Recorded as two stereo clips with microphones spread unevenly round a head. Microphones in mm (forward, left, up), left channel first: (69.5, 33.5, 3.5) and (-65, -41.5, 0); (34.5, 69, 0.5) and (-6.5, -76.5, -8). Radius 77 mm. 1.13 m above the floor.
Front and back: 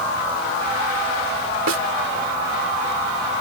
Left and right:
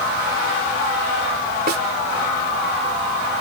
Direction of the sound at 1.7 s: 145° right.